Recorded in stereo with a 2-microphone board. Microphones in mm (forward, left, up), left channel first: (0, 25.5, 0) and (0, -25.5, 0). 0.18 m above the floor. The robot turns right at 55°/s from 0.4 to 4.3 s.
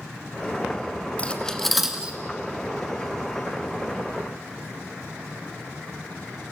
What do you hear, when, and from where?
1.2 s cutlery clinking: 25° left (ahead or behind), 1.5 m; by 2.2 s 20° right (ahead or behind), 1.5 m